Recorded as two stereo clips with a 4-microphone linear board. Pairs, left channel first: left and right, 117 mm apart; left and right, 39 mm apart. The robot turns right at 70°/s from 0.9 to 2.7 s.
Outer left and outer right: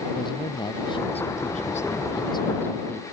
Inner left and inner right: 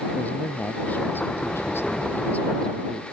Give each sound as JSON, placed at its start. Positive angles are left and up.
{"t": 0.1, "sound": "a man speaking", "azimuth_deg": 40}